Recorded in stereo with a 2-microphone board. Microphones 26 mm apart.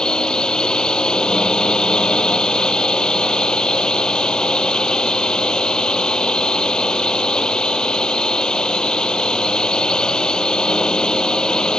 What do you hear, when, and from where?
0.0 s a drone: 30° left (ahead or behind)